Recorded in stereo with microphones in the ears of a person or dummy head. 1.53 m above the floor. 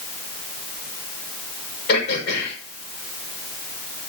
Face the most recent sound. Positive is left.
turn(degrees=60)  # may be behind; listen again after turning